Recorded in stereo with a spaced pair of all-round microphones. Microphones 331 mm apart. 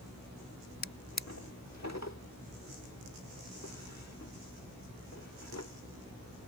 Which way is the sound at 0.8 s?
50° left (ahead or behind).